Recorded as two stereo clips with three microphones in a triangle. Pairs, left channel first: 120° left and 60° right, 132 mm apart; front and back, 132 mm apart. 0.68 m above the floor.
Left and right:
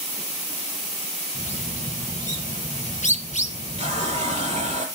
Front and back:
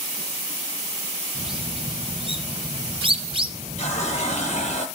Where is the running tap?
30° right, 8.5 m.